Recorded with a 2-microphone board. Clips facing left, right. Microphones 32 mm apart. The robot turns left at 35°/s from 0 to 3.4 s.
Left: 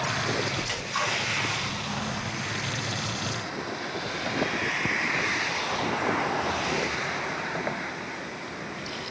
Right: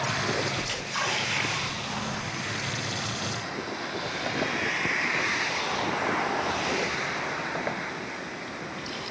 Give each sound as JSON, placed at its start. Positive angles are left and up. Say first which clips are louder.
{"t": 0.6, "sound": "a splash", "louder": "left 1 dB", "side_deg": 15, "distance_m": 1.5}